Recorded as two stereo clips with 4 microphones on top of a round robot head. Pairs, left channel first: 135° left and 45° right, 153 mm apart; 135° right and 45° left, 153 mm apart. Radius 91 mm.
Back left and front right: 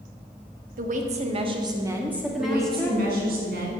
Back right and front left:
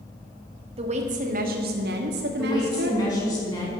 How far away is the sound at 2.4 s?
About 4.5 m.